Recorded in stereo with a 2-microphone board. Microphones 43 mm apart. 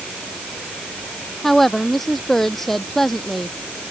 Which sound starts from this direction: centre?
A woman speaking, at 1.4 s.